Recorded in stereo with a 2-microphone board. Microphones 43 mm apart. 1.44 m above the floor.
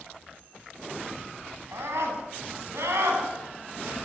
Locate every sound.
1.7 s a scream: 80° right, 9 m; by 3.9 s 60° right (ahead or behind), 9.5 m